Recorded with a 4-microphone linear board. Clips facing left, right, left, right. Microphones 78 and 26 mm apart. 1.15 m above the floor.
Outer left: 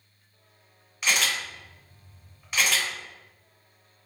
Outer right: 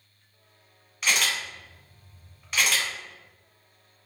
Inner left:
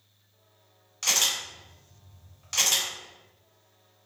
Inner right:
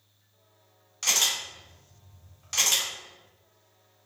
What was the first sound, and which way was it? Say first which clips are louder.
A camera shutter: even, even; 5° left (ahead or behind).